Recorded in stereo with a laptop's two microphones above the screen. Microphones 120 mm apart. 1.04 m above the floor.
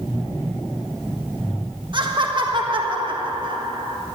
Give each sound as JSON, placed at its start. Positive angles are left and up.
{"t": 1.9, "sound": "laughter", "side_deg": -40, "distance_m": 1.6}